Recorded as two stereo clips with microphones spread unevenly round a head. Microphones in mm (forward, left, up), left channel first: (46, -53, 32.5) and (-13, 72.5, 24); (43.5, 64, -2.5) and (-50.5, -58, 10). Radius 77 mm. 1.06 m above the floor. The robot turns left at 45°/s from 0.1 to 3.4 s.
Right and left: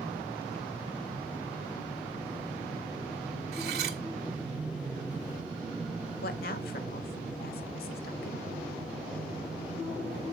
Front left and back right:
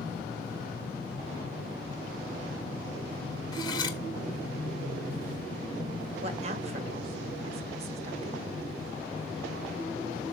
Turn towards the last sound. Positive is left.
turn(degrees=-75)